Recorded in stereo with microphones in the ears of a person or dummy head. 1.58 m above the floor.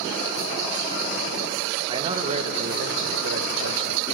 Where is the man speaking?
30° right (ahead or behind), 2 m; by 4.0 s 75° right (ahead or behind), 1.7 m.